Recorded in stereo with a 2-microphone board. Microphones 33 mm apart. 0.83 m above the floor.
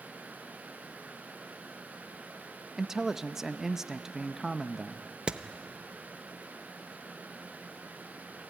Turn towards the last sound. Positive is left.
turn(degrees=-35)  # may be behind; listen again after turning